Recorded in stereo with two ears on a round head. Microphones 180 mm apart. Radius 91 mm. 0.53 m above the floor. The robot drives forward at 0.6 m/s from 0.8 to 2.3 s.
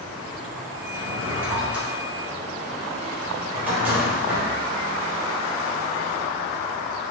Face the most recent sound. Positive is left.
turn(degrees=-10)  # may be behind; listen again after turning